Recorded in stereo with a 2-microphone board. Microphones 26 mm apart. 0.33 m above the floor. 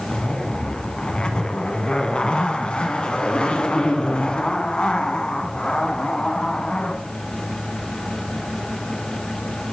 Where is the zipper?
45° left (ahead or behind), 1.1 m.